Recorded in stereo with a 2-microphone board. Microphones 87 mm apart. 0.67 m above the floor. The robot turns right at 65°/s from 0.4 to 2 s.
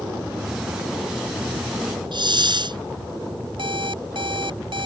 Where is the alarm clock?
70° right (ahead or behind).